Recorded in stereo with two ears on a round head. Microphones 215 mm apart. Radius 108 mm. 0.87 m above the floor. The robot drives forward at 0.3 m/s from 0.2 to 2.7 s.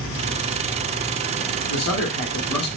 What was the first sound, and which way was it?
A man speaking, 80° left.